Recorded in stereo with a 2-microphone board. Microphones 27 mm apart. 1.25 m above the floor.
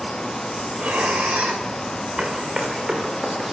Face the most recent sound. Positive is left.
turn(degrees=-30)  # may be behind; listen again after turning